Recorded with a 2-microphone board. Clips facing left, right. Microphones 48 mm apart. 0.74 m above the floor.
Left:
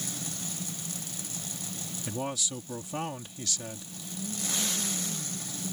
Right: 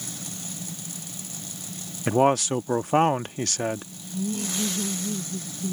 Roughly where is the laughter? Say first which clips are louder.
Right 7 dB; right.